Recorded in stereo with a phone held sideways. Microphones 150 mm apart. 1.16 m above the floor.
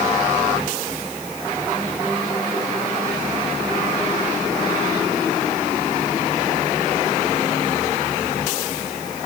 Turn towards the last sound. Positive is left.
No sound to turn to.